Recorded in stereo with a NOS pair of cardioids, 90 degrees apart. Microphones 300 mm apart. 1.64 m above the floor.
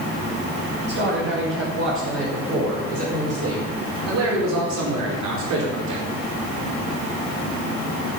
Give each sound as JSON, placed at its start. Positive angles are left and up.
{"t": 0.9, "sound": "a man speaking", "azimuth_deg": -40, "distance_m": 6.5}